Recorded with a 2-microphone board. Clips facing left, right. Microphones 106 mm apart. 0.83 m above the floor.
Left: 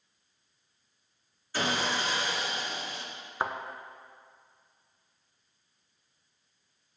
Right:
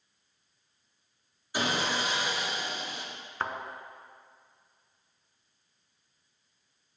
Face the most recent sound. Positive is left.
turn(degrees=15)  # may be behind; listen again after turning